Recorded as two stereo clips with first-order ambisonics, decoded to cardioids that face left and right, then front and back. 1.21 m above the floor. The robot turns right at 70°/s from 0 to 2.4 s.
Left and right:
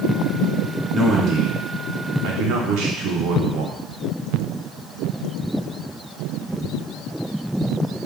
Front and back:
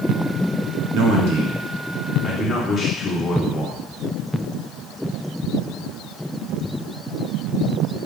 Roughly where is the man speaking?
Behind.